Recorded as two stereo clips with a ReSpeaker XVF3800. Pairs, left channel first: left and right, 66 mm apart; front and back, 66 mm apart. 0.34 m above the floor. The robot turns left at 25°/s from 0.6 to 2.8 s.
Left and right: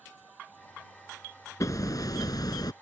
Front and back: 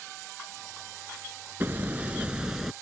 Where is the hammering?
120° left; by 2.7 s 95° left.